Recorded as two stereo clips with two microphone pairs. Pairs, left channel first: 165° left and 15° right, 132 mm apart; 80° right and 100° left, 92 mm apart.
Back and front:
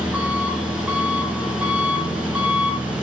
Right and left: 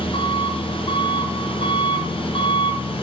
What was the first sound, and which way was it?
An engine running, 100° right.